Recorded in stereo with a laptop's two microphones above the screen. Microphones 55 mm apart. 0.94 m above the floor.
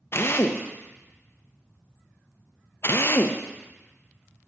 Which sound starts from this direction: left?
A drill, at 0.1 s.